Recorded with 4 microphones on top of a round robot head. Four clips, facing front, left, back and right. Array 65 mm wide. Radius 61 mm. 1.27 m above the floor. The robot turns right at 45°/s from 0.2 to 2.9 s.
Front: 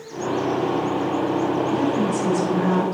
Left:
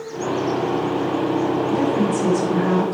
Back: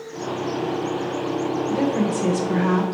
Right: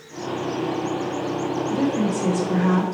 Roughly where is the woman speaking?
Behind left.